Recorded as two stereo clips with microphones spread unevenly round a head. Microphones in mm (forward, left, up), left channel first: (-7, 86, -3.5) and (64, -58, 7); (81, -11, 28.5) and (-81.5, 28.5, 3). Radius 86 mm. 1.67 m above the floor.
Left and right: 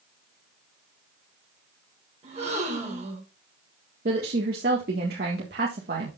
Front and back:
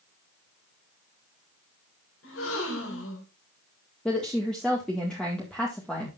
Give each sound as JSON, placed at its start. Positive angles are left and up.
{"t": 2.2, "sound": "a gasp", "azimuth_deg": -15, "distance_m": 4.5}
{"t": 4.0, "sound": "a woman speaking", "azimuth_deg": -95, "distance_m": 1.8}